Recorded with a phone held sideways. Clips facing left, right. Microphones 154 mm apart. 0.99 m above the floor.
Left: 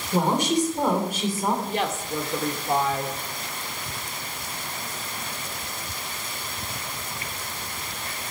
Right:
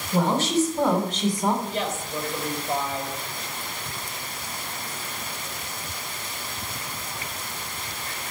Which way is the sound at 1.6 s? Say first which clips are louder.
Left 2 dB; 65° left (ahead or behind).